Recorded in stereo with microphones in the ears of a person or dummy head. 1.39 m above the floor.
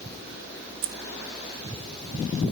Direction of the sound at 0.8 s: 60° right (ahead or behind).